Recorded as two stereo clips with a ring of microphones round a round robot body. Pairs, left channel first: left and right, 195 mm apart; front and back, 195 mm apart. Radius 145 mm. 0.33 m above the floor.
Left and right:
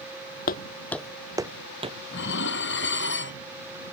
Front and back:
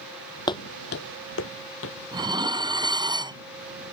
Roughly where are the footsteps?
Ahead left.